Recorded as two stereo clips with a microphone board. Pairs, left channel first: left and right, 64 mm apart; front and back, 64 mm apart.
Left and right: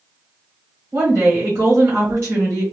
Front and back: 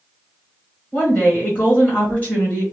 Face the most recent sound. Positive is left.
turn(degrees=-55)